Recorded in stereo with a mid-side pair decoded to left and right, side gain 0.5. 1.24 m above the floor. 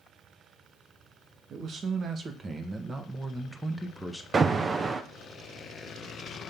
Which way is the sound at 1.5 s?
55° right.